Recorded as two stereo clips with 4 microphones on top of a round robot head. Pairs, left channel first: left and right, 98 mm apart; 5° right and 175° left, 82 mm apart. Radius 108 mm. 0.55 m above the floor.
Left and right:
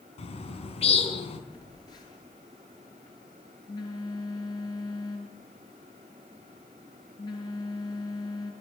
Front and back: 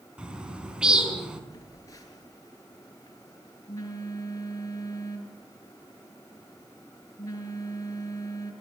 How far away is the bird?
About 4.5 m.